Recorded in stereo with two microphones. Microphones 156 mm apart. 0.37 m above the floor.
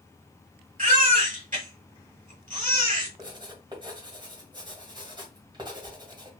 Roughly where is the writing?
Right.